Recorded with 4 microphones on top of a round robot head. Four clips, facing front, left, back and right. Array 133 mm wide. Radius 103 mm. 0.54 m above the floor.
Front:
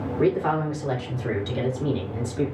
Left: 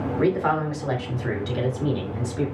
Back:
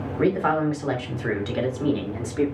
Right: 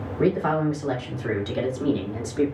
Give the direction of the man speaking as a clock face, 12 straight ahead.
7 o'clock.